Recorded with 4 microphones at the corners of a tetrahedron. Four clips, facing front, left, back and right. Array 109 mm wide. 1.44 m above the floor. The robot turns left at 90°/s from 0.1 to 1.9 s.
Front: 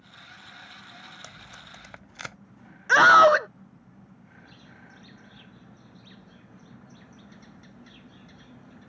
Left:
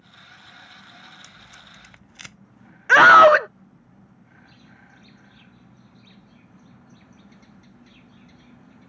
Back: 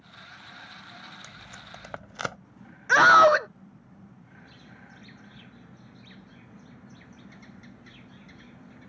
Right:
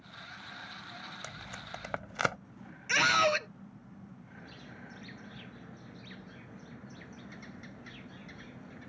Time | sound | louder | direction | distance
1.2 | tape being pulled | right 3 dB, even | 60° right | ?
2.9 | a scream | left 17 dB, front 1 dB | 90° left | ?
4.4 | a bird | right 2 dB, even | 80° right | ?